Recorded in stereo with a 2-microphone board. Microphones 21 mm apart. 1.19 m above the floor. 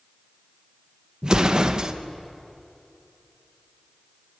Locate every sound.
1.2 s an explosion: 35° right (ahead or behind), 0.9 m